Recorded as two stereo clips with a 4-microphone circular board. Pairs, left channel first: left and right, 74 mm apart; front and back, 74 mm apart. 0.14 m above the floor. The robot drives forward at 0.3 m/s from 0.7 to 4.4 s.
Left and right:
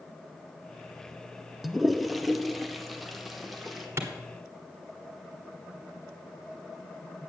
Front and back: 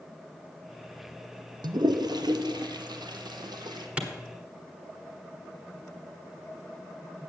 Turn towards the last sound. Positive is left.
turn(degrees=-120)